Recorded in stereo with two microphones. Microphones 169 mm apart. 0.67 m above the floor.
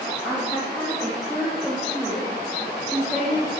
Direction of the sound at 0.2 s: 5° right (ahead or behind).